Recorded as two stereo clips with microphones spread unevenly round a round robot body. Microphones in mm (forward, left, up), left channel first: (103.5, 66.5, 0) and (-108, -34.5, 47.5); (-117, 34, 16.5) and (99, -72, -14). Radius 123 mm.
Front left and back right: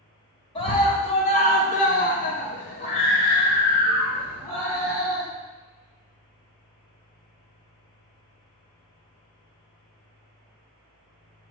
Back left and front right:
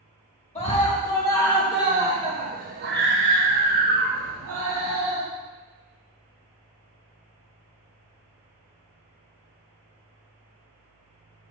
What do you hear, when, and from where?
0.6 s a scream: 85° left, 2 m; by 5.2 s 50° right, 3.5 m